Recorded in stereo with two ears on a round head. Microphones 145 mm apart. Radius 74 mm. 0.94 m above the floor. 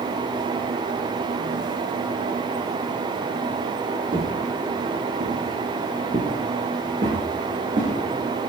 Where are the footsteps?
30° right (ahead or behind), 1.3 m.